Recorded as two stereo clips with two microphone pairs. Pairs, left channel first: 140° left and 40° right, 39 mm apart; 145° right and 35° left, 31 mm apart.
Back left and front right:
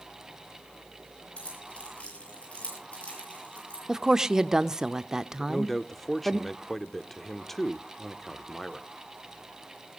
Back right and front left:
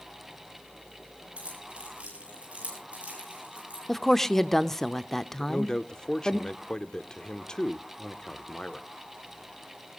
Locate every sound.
1.4 s keys jangling: 90° left, 7 m
3.9 s a woman speaking: 90° right, 0.8 m
5.4 s a man speaking: 145° right, 0.8 m